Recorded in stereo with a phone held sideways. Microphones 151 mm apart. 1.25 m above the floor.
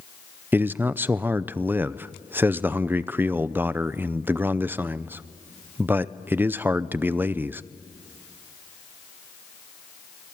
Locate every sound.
0.5 s a man speaking: 15° right (ahead or behind), 0.6 m